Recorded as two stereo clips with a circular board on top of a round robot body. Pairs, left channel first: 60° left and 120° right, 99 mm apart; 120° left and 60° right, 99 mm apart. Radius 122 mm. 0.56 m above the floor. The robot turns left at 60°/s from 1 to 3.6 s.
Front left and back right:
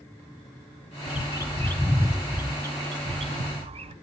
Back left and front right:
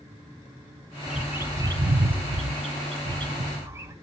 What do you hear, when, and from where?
1.1 s a bird: 30° left, 0.7 m; by 3.9 s 125° right, 0.7 m